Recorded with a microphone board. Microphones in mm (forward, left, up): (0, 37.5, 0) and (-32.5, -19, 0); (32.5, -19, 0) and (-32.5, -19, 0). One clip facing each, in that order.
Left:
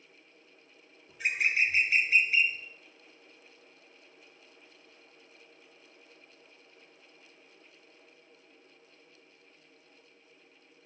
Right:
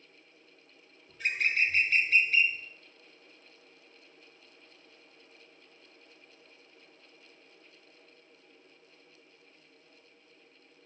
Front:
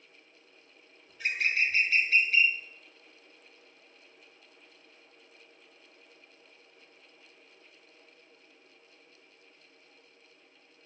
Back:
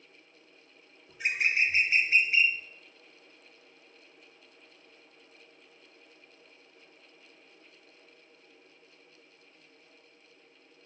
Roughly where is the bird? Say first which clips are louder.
Left 1 dB, back 1 dB; behind left.